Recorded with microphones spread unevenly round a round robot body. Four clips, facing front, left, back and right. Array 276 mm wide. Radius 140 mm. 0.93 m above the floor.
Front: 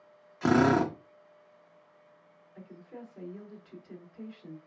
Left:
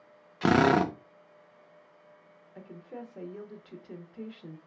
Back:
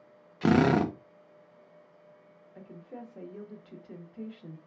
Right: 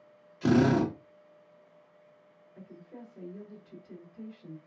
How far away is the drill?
About 0.6 m.